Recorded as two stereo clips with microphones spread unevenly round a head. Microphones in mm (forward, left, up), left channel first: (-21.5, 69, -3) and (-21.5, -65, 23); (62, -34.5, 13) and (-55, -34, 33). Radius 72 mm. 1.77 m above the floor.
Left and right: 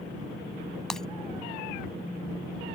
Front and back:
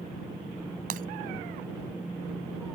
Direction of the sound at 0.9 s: Straight behind.